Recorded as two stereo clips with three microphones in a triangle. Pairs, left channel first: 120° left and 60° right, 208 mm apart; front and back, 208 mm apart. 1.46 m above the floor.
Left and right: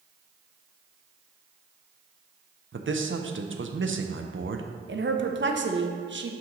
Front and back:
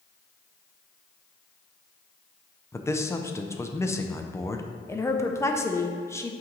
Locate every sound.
2.7 s a man speaking: 80° right, 0.6 m
4.9 s a woman speaking: 80° right, 0.6 m